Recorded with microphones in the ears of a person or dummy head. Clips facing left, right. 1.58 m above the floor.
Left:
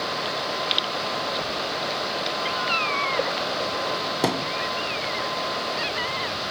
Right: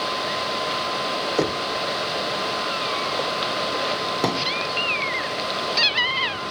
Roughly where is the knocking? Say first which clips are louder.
Right 6 dB; right.